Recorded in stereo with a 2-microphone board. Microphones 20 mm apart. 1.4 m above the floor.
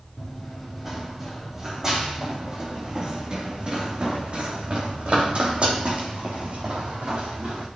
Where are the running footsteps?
5° right (ahead or behind), 4 m; by 7.7 s 70° right (ahead or behind), 4.5 m.